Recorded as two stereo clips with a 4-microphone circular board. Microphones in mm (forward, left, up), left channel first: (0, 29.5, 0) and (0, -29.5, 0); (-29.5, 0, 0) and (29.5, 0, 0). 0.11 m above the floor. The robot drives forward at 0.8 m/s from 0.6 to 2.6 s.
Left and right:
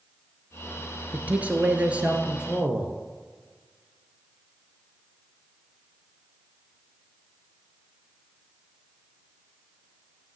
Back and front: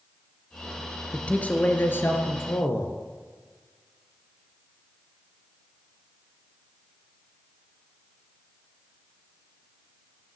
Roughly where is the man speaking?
Behind right.